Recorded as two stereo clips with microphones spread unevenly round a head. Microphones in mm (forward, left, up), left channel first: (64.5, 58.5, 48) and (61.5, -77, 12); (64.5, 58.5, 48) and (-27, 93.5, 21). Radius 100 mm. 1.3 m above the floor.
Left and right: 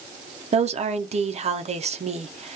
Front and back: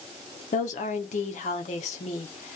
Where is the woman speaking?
45° right, 0.6 m.